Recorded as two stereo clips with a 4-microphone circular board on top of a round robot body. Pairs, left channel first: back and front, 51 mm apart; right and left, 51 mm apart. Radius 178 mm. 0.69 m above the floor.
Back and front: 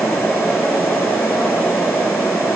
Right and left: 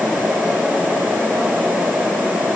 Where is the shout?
I don't hear a shout.